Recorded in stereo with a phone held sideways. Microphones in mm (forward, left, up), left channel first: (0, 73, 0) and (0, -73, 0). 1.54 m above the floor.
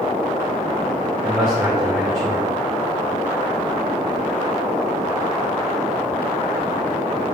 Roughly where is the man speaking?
Centre.